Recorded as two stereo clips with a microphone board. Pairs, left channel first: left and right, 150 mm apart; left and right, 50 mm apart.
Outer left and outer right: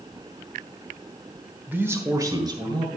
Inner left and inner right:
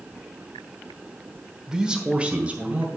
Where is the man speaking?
10° right (ahead or behind), 1.1 m; by 3.0 s 30° right (ahead or behind), 1.9 m.